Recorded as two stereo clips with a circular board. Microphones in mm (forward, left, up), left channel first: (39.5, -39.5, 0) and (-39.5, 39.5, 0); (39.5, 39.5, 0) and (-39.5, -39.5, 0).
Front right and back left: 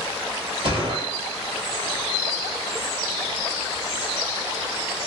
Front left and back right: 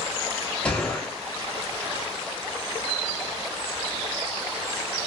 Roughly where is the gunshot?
Behind left.